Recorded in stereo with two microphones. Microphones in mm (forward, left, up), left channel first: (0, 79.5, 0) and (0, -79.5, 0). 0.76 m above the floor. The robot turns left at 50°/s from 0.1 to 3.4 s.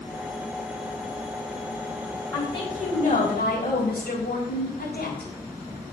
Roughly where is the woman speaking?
Behind.